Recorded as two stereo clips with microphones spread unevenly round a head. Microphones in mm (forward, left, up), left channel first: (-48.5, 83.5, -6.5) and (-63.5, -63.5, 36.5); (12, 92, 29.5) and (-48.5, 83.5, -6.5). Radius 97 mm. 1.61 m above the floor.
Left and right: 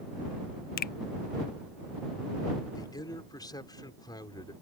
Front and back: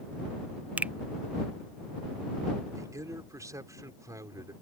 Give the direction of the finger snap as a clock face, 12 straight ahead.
8 o'clock.